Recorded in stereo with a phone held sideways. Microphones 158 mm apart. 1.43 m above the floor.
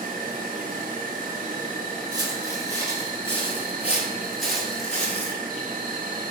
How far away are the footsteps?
About 1.9 m.